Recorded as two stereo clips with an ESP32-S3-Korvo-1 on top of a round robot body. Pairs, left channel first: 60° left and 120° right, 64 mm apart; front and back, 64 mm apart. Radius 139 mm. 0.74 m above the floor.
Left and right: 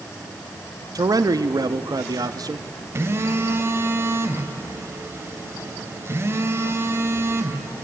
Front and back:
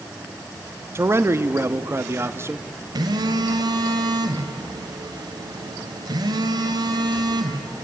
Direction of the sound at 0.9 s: 135° right.